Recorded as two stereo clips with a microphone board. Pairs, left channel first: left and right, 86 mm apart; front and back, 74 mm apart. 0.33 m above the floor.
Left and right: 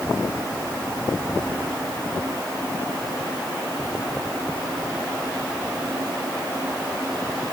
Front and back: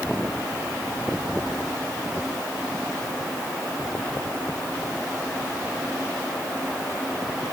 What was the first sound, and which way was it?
Only background noise.